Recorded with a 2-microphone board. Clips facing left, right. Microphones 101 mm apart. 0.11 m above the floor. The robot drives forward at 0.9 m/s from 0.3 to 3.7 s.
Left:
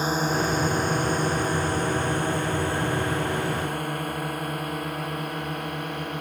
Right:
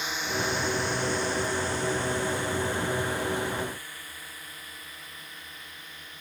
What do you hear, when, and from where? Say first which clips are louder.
0.0 s a drone: left 7 dB; 40° left (ahead or behind); by 6.2 s 60° left (ahead or behind)